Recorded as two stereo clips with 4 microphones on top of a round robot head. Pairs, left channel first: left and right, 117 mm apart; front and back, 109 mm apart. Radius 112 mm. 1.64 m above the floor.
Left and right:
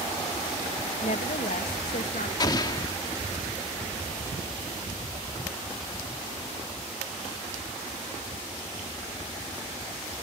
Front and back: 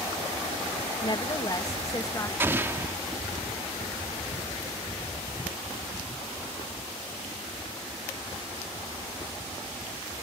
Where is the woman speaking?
45° left; by 2.3 s 60° left.